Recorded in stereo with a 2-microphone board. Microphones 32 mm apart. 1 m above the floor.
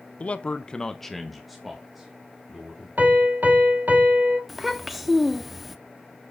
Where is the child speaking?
Centre (ahead or behind), 1.0 m.